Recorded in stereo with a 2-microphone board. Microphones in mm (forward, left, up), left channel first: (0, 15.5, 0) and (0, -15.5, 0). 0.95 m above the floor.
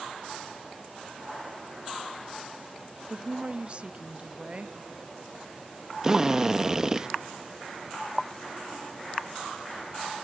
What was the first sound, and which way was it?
A woman speaking, 35° right (ahead or behind).